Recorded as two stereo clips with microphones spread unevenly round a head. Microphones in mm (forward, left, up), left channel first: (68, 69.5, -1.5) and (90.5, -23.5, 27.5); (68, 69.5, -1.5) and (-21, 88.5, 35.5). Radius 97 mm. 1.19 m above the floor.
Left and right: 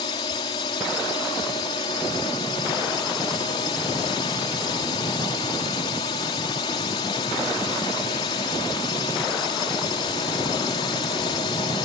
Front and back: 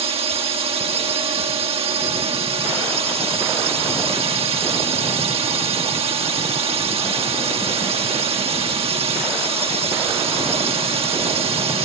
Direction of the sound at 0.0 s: 155° left.